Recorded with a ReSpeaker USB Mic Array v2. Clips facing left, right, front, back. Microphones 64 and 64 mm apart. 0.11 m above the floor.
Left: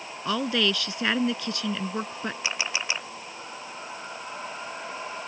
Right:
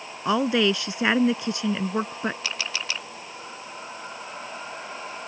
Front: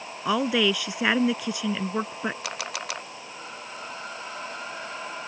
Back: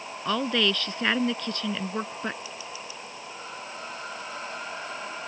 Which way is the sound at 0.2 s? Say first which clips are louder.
Right 4 dB, front 3 dB; 60° right.